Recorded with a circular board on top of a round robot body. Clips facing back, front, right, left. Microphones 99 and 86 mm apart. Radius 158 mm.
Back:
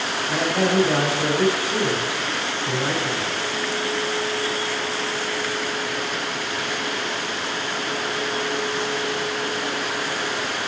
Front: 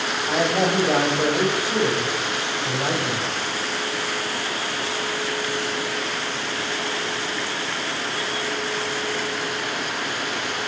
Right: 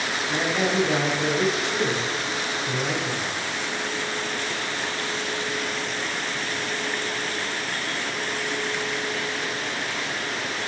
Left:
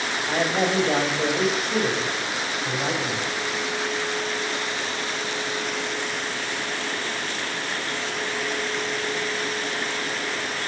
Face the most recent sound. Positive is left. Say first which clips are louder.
# front 1 dB, left 2 dB
turn(degrees=45)